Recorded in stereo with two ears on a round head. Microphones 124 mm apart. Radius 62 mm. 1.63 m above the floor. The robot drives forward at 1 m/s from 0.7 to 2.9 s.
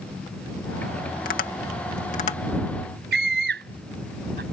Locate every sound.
1.2 s tapping: 75° left (ahead or behind); by 2.4 s 50° left (ahead or behind)
3.1 s a scream: 85° right